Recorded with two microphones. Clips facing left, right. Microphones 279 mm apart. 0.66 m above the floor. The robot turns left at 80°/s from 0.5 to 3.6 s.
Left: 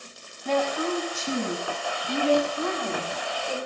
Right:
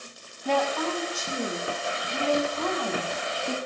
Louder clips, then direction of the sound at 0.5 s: Left 1 dB; 170° right.